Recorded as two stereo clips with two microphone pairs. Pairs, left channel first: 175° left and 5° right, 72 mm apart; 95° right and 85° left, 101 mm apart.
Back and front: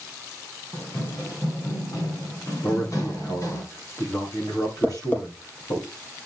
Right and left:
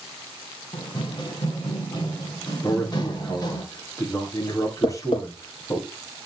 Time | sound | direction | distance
0.7 | running footsteps | 140° right | 4.5 m
2.6 | a man speaking | 150° right | 7 m
4.8 | tapping | 125° right | 4.5 m